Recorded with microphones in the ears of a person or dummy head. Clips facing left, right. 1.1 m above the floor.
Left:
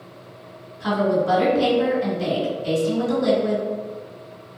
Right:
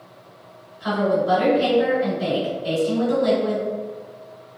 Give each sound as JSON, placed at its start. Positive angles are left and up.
{"t": 0.8, "sound": "a woman speaking", "side_deg": 55, "distance_m": 1.8}